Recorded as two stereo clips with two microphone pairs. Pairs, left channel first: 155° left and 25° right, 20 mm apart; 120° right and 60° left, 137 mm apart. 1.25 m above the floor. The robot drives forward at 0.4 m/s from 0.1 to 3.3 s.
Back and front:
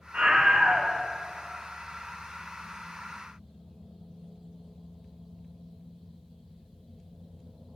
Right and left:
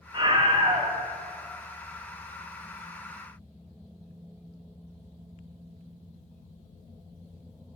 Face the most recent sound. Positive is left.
turn(degrees=145)